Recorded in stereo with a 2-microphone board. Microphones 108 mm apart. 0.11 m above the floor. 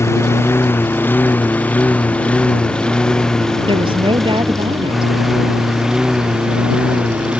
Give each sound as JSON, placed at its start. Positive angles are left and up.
{"t": 0.0, "sound": "a lawn mower", "side_deg": 25}
{"t": 3.7, "sound": "a woman speaking", "side_deg": -55}